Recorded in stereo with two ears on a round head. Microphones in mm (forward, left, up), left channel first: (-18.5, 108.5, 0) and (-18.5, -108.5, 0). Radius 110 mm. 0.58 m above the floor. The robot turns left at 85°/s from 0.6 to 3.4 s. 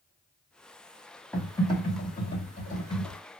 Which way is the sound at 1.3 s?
175° left.